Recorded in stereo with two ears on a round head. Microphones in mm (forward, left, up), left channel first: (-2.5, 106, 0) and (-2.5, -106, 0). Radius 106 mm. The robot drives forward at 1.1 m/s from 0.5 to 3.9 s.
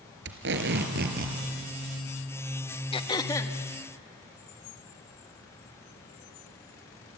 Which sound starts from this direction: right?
Tape being pulled, at 0.2 s.